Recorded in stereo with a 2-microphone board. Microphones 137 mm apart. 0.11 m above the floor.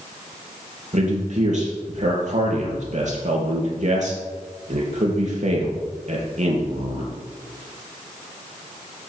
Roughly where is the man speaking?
Right.